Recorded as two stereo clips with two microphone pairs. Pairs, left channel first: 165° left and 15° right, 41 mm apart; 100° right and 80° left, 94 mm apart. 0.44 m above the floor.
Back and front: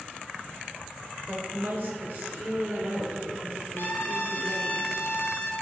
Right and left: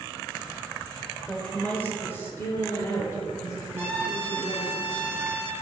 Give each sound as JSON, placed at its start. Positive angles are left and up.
{"t": 1.3, "sound": "a woman speaking", "azimuth_deg": -15, "distance_m": 1.2}
{"t": 3.8, "sound": "a trumpet", "azimuth_deg": 145, "distance_m": 1.2}